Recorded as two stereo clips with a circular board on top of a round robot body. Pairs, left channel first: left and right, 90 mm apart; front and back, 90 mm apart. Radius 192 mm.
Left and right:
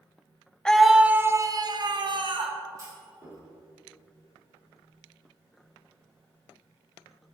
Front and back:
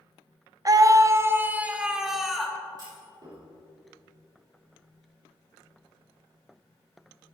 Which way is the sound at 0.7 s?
170° left.